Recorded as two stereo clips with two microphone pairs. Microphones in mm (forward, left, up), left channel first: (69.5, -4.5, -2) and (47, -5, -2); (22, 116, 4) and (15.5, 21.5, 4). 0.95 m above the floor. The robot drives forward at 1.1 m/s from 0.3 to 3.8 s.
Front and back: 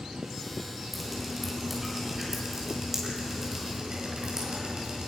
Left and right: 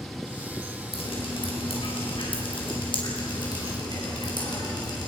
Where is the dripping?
95° left, 5.5 m; by 5.1 s 125° left, 6.5 m.